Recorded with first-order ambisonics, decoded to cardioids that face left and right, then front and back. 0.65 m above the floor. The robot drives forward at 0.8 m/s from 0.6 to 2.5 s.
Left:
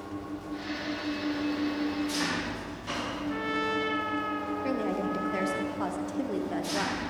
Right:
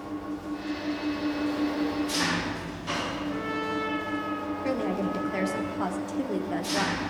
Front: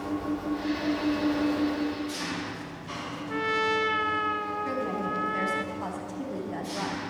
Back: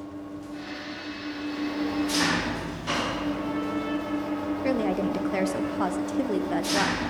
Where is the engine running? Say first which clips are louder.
Right 3 dB, front 7 dB; 5° right, 1.0 m; by 7.1 s 170° right, 0.7 m.